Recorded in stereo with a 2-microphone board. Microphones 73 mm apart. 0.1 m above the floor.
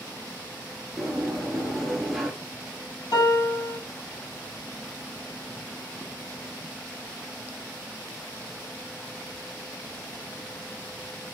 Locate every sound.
1.0 s a sliding door: 5° right (ahead or behind), 0.9 m
3.1 s a piano: 60° left (ahead or behind), 2 m